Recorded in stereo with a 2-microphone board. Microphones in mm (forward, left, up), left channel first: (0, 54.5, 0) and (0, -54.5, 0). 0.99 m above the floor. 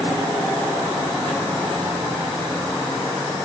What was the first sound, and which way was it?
Only background noise.